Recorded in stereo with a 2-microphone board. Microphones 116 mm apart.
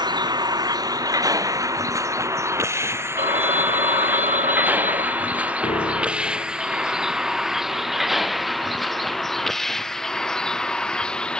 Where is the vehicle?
35° right (ahead or behind); by 11.4 s 10° left (ahead or behind).